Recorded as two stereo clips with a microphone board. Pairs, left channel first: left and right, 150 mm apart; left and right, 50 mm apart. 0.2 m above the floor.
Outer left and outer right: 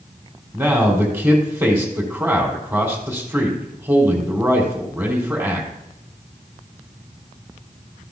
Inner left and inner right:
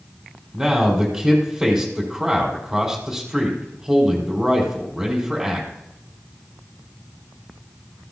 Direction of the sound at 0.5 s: 15° right (ahead or behind).